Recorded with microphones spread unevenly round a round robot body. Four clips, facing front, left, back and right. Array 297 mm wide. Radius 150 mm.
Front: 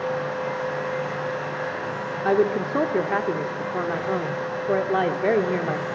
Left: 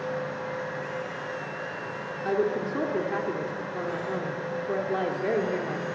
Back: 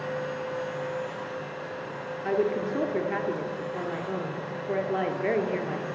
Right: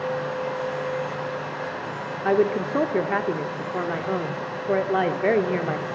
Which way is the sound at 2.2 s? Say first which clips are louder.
Right 5 dB, front 5 dB; 40° right.